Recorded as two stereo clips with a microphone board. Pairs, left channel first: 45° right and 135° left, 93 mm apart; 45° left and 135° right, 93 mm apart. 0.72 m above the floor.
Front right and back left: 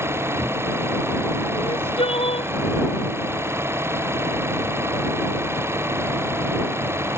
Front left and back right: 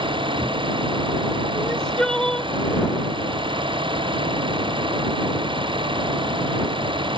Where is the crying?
40° right.